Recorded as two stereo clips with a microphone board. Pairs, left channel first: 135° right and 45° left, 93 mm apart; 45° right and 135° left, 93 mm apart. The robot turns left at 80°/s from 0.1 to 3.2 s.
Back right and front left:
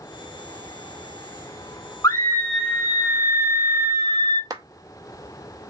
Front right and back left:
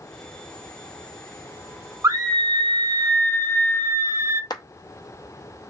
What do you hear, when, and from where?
2.0 s a scream: straight behind, 1.1 m; by 4.4 s 85° left, 1.1 m
4.5 s a clap: 5° right, 0.6 m